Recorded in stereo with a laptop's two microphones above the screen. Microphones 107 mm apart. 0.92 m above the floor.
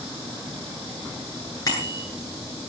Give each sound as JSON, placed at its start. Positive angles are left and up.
{"t": 1.7, "sound": "a bicycle bell", "side_deg": 35, "distance_m": 8.5}